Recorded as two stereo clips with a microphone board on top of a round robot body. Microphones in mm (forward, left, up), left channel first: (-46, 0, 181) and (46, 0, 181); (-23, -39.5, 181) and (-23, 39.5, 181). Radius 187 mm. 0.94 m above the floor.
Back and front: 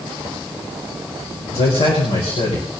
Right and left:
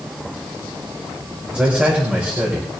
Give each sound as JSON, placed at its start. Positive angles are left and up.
{"t": 1.5, "sound": "a man speaking", "azimuth_deg": 165, "distance_m": 5.0}